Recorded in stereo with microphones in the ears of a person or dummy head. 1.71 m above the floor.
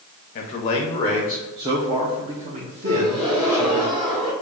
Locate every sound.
0.3 s a man speaking: 35° left (ahead or behind), 0.8 m; by 3.8 s 50° right (ahead or behind), 1.9 m
2.8 s a gasp: 40° right (ahead or behind), 2 m